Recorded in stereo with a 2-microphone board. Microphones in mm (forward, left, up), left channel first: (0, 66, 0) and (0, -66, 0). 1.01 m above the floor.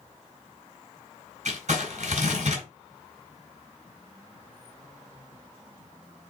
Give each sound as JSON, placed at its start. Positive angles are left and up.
{"t": 1.4, "sound": "crumpling", "side_deg": -60, "distance_m": 4.0}